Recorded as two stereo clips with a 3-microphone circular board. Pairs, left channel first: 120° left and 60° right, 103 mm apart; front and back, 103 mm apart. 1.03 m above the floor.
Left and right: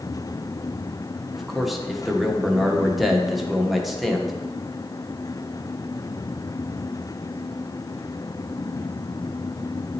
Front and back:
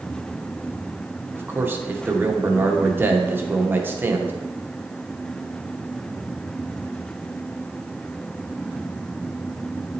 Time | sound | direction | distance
1.3 | a man speaking | 145° right | 0.7 m